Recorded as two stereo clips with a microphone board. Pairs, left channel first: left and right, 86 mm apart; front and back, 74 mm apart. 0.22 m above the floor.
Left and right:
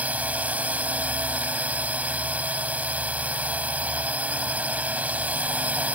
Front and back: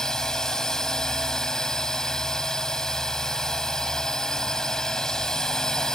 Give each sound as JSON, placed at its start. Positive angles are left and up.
{"t": 0.0, "sound": "a drone", "azimuth_deg": -65}